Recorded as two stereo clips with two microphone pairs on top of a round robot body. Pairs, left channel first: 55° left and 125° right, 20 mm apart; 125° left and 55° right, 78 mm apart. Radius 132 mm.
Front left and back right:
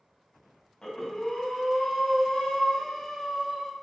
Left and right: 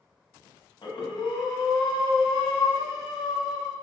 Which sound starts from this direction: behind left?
Breathing, at 0.8 s.